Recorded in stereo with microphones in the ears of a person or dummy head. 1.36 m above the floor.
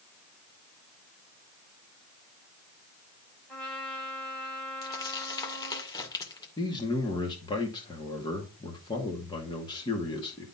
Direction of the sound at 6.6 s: 25° left (ahead or behind).